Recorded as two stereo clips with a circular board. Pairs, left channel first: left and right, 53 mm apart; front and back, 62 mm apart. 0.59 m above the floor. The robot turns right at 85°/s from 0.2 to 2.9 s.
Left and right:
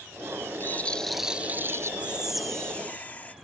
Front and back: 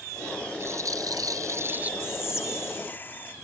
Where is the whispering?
35° right; by 3.4 s 40° left.